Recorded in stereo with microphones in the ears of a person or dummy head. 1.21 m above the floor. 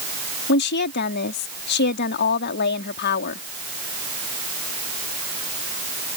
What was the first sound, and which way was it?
A woman speaking, 55° left (ahead or behind).